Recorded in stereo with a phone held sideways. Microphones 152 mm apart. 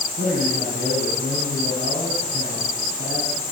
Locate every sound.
0.2 s a man speaking: 75° right (ahead or behind), 7.5 m